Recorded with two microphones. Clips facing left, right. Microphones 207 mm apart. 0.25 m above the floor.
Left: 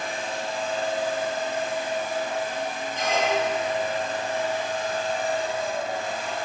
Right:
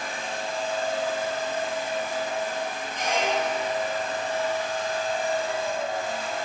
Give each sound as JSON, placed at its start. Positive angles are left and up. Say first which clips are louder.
{"t": 3.0, "sound": "a squeak", "louder": "left 2 dB", "side_deg": -15, "distance_m": 1.7}